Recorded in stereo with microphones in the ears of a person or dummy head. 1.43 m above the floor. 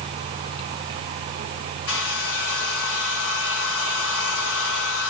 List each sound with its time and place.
1.9 s a hair dryer: 85° left, 4 m